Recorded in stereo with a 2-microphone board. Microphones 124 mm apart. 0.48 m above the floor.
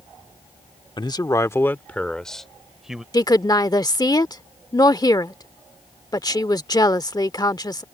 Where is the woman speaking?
30° left (ahead or behind).